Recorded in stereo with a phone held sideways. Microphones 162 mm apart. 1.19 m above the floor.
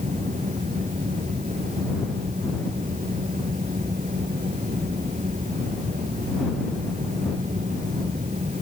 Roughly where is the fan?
Right.